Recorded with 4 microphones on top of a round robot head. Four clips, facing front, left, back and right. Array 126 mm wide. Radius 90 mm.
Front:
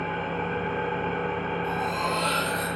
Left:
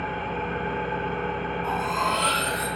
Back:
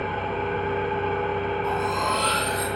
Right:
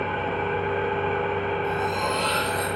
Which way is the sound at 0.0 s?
115° right.